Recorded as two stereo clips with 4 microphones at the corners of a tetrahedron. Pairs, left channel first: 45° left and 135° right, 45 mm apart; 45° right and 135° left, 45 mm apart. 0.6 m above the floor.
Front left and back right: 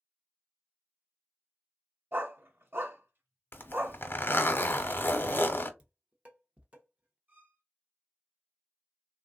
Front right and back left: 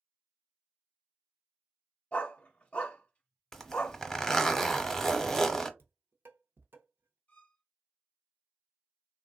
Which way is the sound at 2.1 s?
105° right.